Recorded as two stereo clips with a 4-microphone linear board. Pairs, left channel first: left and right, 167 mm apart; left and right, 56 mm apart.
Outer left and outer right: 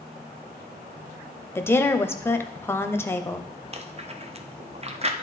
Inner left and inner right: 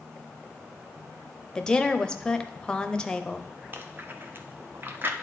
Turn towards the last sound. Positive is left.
turn(degrees=-40)  # may be behind; listen again after turning